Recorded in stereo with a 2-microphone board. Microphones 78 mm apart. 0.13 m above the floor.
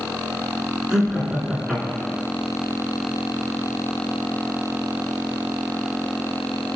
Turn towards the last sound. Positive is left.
turn(degrees=-10)  # may be behind; listen again after turning